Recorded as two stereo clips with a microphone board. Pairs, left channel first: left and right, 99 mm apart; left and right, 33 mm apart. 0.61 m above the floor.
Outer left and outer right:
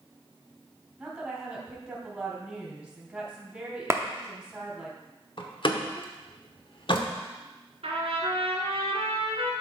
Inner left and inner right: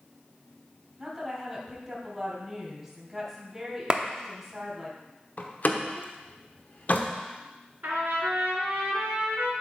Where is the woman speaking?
15° right (ahead or behind), 3 m.